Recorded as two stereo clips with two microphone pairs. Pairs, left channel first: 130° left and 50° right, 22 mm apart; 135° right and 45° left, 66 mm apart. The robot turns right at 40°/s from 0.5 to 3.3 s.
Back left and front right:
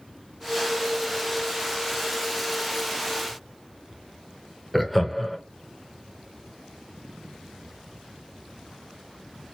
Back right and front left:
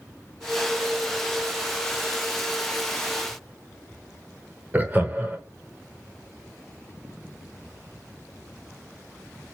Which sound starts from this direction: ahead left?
Laughter, at 4.7 s.